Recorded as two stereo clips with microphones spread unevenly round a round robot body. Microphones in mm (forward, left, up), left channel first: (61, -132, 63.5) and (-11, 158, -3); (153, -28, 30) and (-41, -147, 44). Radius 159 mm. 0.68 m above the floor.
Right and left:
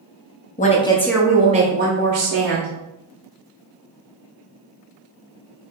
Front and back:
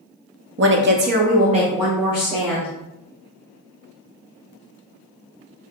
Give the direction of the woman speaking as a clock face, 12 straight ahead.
5 o'clock.